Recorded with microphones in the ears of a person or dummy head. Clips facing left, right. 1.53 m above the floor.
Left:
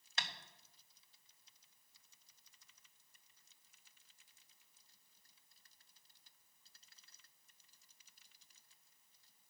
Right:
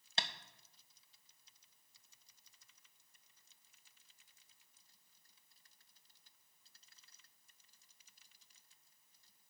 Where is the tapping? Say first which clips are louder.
Right 4 dB; 30° right (ahead or behind), 0.6 m.